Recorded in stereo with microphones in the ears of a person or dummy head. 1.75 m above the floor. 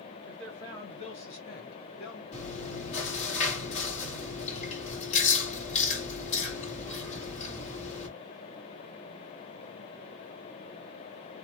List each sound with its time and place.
0.2 s a man speaking: centre (ahead or behind), 0.8 m; by 2.2 s 65° left (ahead or behind), 1.3 m
2.3 s chewing: 40° left (ahead or behind), 2 m